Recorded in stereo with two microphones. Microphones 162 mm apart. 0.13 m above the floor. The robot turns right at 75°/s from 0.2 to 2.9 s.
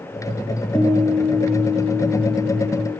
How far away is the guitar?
About 2.5 m.